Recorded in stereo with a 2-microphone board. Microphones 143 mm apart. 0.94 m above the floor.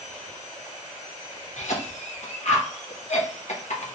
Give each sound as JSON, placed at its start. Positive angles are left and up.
{"t": 1.6, "sound": "a cough", "side_deg": 60, "distance_m": 0.8}